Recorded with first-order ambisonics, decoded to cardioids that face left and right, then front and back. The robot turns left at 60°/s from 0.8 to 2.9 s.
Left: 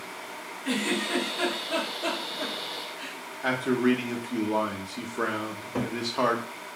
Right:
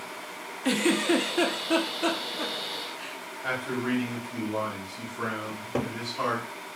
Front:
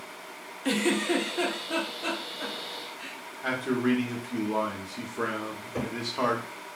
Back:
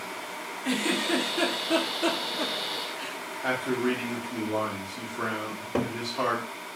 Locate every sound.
0.7 s a giggle: 65° right, 0.7 m; by 3.2 s 170° left, 0.7 m
3.4 s a man speaking: 75° left, 0.8 m
5.5 s a cupboard door: 145° right, 0.8 m